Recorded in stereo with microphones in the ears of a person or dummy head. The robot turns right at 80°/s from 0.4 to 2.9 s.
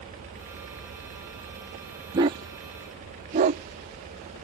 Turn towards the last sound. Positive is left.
turn(degrees=-35)  # may be behind; listen again after turning